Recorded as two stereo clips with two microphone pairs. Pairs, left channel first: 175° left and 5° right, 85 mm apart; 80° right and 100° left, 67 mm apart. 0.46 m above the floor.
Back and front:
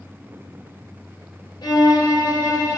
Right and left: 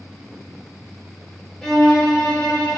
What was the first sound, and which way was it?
A violin, 160° right.